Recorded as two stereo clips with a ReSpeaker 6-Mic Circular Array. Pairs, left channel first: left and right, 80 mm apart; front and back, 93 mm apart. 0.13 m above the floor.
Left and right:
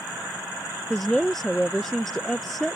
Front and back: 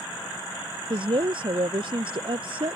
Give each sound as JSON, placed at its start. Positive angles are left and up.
{"t": 0.9, "sound": "a woman speaking", "azimuth_deg": 180}